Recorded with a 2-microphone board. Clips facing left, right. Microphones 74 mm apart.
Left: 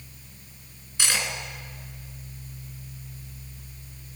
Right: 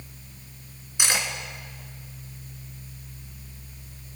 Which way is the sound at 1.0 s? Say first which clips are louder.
Right 1 dB; 15° right (ahead or behind).